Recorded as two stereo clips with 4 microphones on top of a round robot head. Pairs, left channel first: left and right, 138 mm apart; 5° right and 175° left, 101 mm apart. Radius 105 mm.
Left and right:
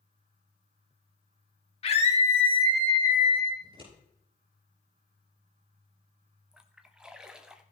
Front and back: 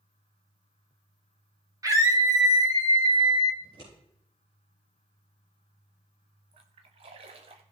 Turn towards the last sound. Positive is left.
turn(degrees=-175)